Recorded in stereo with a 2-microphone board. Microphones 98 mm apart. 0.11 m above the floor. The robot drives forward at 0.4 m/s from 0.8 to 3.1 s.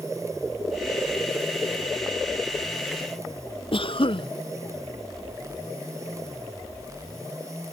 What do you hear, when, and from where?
3.7 s a cough: 60° left (ahead or behind)